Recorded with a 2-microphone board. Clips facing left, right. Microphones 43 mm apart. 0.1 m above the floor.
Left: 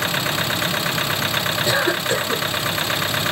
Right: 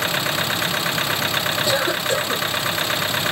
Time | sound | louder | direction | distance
1.6 | a cough | left 3 dB | 35° left (ahead or behind) | 2.5 m